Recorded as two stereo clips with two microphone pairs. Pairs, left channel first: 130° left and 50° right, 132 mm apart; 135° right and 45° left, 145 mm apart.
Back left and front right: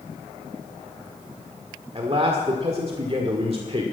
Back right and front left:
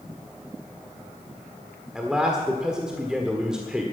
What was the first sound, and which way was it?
A man speaking, 40° right.